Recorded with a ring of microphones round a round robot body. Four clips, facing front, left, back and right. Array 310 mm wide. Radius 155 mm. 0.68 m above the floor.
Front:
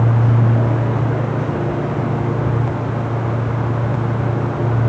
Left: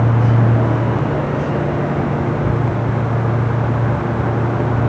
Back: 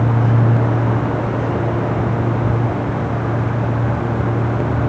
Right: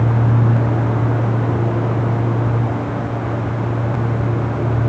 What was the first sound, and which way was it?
Only background noise.